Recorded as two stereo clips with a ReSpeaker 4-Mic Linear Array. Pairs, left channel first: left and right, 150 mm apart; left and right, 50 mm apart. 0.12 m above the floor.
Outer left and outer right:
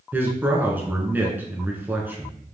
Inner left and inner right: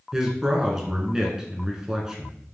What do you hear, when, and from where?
0.1 s a man speaking: 15° right (ahead or behind), 1.1 m